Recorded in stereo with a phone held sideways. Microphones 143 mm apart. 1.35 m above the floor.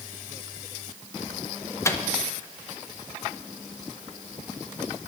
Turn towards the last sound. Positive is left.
turn(degrees=20)  # may be behind; listen again after turning